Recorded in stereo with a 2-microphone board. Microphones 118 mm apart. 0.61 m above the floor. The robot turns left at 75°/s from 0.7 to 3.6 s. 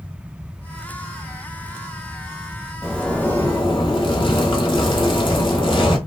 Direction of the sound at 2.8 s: 170° right.